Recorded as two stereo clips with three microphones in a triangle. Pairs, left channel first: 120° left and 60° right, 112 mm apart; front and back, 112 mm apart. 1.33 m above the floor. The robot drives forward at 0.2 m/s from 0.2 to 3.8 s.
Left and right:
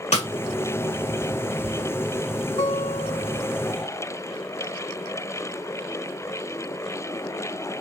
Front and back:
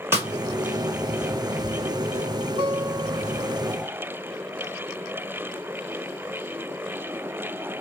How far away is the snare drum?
About 1.8 m.